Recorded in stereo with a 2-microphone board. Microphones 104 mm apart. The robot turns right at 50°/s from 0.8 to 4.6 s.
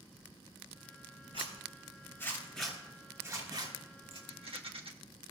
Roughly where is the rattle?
Right.